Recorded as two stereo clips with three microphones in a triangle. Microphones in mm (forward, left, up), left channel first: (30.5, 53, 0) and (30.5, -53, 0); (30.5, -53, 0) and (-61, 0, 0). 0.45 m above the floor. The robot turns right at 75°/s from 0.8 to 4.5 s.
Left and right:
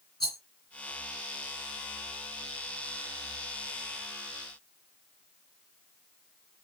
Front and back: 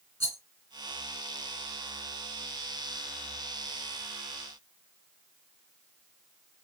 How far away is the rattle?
About 2 m.